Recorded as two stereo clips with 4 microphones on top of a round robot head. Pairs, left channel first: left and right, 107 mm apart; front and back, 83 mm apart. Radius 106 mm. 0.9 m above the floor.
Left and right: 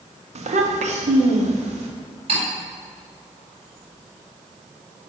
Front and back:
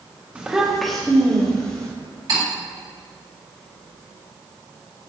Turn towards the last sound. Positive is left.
turn(degrees=-130)